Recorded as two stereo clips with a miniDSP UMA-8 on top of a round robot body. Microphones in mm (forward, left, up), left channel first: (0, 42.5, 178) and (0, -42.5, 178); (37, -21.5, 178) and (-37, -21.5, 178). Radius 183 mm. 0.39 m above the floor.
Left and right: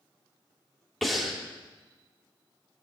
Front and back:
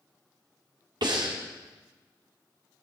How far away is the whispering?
No whispering in this recording.